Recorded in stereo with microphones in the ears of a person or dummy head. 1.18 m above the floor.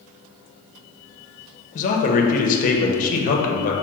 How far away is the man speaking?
About 0.7 m.